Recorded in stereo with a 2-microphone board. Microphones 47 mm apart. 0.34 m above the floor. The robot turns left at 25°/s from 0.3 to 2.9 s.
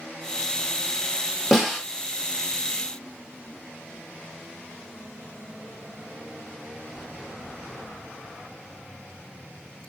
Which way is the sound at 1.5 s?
5° right (ahead or behind).